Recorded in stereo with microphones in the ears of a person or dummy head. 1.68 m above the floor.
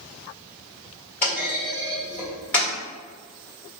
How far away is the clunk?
About 1.4 m.